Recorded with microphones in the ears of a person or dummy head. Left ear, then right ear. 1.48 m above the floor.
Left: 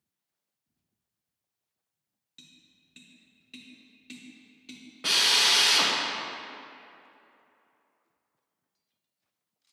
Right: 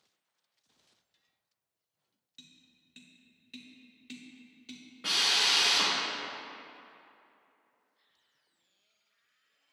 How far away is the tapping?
About 0.5 m.